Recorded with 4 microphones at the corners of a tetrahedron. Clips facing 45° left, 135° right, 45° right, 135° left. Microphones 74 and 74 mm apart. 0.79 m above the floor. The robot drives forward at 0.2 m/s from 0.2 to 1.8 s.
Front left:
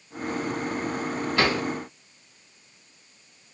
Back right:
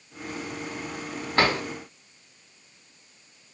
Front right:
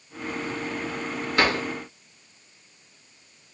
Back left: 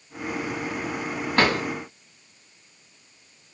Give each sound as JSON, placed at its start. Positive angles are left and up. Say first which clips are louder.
{"t": 1.4, "sound": "a drawer", "louder": "back right 2 dB, back left 1 dB", "azimuth_deg": 175, "distance_m": 1.8}